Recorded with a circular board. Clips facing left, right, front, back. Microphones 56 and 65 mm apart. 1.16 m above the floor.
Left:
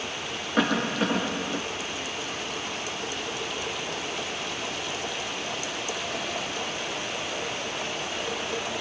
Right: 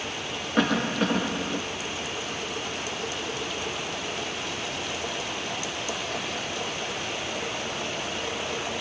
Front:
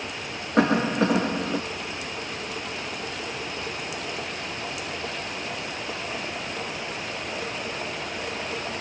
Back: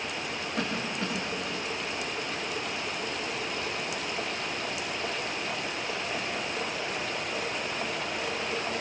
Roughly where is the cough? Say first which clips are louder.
Even, front 13 dB; ahead.